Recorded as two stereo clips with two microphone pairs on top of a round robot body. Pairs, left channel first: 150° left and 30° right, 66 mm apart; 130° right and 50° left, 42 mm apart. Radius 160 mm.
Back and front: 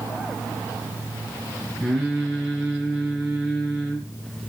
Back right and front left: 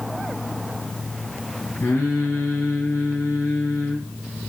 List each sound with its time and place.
1.8 s singing: 115° right, 5.5 m